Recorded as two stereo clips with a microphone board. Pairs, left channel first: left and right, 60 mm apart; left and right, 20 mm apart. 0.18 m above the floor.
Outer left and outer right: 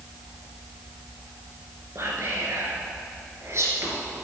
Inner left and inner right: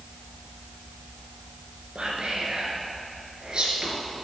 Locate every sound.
1.9 s whispering: 50° right (ahead or behind), 2 m